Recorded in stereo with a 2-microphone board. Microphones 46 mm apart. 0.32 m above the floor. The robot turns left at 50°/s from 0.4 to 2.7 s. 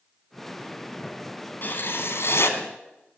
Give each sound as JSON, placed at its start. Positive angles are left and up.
{"t": 1.6, "sound": "writing", "azimuth_deg": 130, "distance_m": 1.5}